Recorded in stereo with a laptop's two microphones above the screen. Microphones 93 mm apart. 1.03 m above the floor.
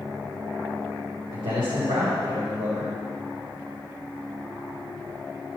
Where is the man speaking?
85° right, 3.5 m.